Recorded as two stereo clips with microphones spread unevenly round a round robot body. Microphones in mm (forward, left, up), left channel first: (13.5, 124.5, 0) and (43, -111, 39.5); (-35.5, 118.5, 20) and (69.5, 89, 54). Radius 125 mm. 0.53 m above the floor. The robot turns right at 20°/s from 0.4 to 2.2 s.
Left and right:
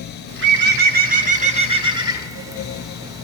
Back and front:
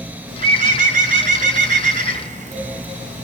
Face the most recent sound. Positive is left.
turn(degrees=0)